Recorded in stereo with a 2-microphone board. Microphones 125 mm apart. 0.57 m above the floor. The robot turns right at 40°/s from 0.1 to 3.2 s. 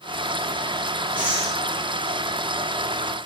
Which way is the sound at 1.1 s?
15° right (ahead or behind).